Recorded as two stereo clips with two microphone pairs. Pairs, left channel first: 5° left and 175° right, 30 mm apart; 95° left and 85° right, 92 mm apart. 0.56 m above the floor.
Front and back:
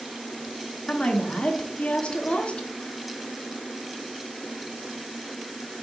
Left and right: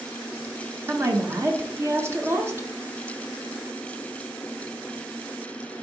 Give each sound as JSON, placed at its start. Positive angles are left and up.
{"t": 0.9, "sound": "a woman speaking", "azimuth_deg": -30, "distance_m": 1.1}